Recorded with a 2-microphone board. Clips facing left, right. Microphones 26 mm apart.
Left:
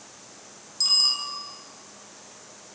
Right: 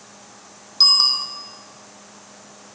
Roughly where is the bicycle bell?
Right.